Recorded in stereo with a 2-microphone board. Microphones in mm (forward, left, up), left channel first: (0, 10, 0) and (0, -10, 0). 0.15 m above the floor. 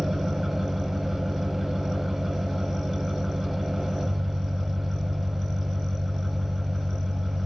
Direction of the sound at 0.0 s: 10° right (ahead or behind).